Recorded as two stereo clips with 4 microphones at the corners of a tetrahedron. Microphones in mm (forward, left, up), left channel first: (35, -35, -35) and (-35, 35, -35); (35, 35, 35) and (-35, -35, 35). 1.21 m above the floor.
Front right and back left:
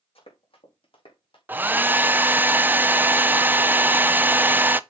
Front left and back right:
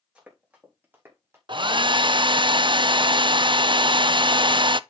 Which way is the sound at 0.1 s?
55° right.